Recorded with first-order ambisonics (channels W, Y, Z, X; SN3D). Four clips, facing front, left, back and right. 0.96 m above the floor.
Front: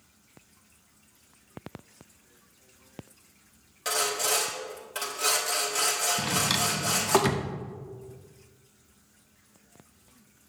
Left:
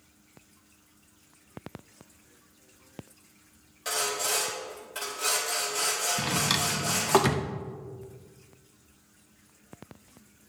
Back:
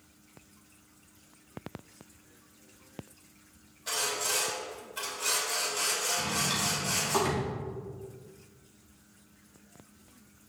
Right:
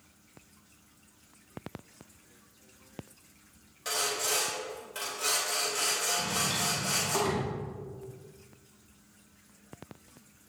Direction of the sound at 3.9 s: Straight ahead.